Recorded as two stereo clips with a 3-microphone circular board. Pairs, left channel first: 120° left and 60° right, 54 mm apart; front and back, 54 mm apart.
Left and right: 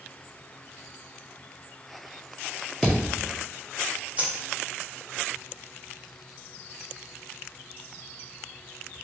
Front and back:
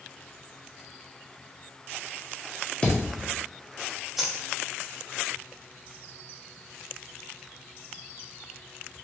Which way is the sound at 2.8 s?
25° left.